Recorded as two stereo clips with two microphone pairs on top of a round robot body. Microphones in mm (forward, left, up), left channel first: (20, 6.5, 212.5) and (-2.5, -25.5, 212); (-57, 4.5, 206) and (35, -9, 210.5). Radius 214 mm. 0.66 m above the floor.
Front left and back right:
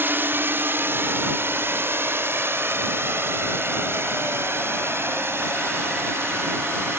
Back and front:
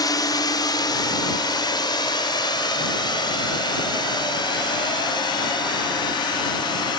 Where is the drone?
150° right; by 7.0 s 145° right.